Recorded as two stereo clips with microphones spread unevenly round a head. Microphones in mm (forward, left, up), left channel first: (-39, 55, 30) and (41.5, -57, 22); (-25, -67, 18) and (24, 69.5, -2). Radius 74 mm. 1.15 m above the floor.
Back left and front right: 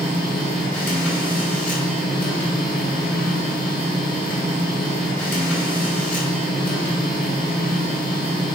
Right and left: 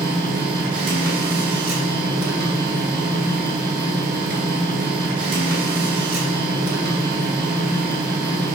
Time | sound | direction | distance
0.0 | a machine running | 45° left | 2.5 m